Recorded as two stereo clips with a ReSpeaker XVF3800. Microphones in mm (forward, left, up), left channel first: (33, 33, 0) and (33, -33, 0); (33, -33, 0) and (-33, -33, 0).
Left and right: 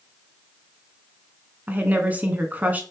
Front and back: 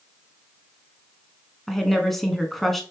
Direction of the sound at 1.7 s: 85° right.